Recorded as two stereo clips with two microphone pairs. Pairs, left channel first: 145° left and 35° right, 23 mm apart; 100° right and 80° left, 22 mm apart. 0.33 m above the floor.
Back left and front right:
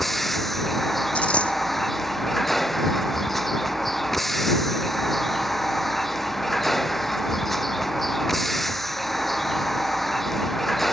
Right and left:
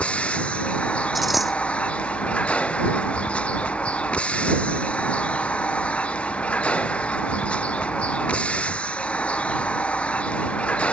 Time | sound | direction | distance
0.0 | a vehicle | 130° right | ?
1.1 | a dropped coin | 165° left | ?